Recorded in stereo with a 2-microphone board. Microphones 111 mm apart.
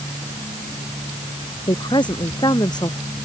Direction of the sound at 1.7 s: 40° left (ahead or behind).